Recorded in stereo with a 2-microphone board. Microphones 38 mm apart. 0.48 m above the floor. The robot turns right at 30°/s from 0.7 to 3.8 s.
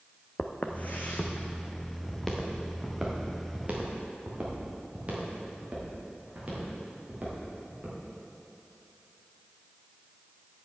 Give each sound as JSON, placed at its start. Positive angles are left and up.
{"t": 0.4, "sound": "footsteps", "side_deg": 40, "distance_m": 1.0}